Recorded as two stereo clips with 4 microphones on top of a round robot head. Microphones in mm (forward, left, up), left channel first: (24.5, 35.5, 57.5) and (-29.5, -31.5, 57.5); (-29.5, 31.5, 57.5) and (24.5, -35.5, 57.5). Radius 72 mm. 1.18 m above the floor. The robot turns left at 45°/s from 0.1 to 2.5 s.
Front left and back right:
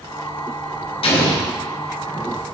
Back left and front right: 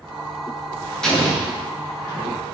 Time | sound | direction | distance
1.0 | an explosion | 45° left | 1.4 m